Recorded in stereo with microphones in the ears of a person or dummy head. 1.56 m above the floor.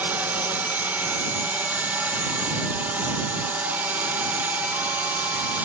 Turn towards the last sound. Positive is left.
turn(degrees=-10)  # may be behind; listen again after turning